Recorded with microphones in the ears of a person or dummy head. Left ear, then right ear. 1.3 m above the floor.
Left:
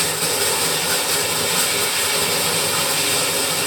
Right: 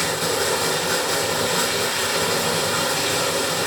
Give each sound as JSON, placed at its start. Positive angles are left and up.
{"t": 0.0, "sound": "running water", "side_deg": 10, "distance_m": 1.0}